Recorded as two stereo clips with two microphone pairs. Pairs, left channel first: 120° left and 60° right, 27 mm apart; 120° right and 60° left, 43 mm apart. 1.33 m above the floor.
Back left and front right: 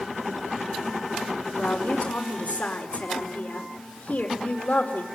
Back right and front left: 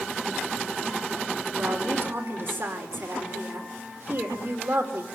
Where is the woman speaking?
95° left, 5 m.